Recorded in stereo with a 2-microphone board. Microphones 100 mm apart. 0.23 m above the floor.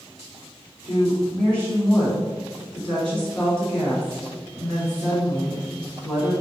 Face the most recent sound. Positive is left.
turn(degrees=25)  # may be behind; listen again after turning